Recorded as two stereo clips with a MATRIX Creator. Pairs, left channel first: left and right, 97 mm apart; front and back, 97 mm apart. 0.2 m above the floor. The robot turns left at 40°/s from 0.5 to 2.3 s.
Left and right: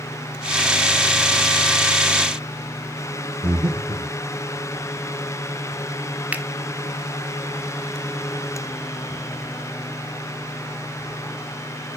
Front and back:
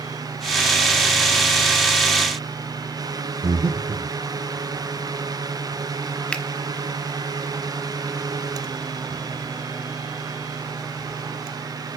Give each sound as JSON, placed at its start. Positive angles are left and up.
{"t": 3.4, "sound": "breathing", "azimuth_deg": -155, "distance_m": 3.0}
{"t": 6.3, "sound": "a finger snap", "azimuth_deg": -55, "distance_m": 0.9}